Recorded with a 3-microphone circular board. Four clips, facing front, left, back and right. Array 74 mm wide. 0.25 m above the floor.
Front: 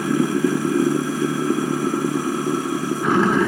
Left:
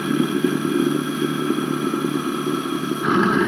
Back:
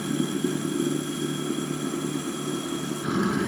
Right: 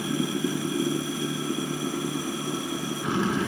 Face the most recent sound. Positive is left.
turn(degrees=40)